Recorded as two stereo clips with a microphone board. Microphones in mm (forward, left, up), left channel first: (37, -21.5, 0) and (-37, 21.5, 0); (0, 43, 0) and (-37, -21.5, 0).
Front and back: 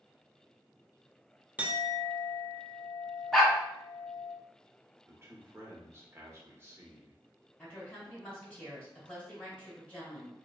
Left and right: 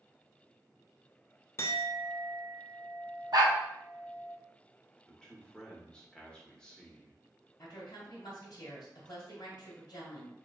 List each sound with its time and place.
1.6 s a clink: 85° left, 0.5 m
3.3 s a dog barking: 120° right, 1.2 m
5.1 s a man speaking: 130° left, 1.0 m
7.6 s a woman speaking: 40° left, 2 m